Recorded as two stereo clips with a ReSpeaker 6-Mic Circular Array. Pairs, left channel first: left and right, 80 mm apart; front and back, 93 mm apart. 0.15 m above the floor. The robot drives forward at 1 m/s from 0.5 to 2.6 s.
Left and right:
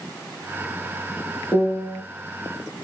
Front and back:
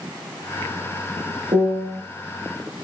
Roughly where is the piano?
Behind.